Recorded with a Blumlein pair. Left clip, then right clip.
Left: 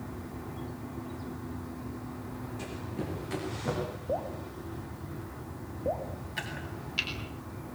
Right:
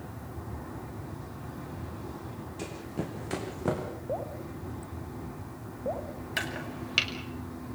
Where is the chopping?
35° right, 5 m.